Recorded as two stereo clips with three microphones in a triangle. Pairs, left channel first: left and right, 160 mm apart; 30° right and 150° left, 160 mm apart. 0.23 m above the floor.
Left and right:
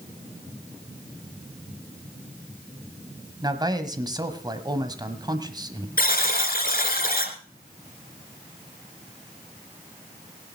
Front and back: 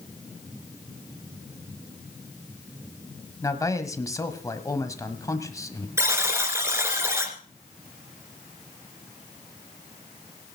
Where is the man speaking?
70° right, 1.3 m.